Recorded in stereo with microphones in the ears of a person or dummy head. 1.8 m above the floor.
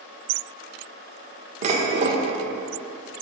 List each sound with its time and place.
1.6 s dishes clattering: 35° right (ahead or behind), 1.4 m